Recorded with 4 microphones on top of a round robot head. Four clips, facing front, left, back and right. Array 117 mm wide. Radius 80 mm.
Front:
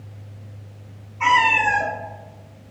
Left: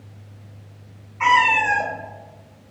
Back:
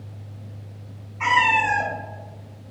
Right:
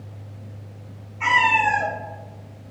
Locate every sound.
1.2 s a cat meowing: 100° left, 0.8 m